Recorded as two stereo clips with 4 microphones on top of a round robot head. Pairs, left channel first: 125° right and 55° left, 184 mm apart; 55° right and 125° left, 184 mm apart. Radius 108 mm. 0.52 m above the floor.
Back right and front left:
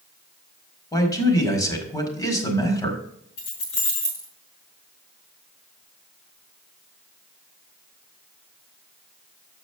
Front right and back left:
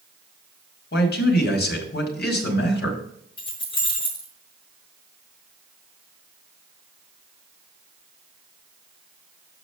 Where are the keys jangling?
120° right, 4 m.